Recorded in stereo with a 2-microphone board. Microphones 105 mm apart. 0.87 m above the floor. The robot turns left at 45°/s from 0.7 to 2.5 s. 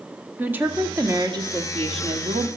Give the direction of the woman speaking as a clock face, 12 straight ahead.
1 o'clock.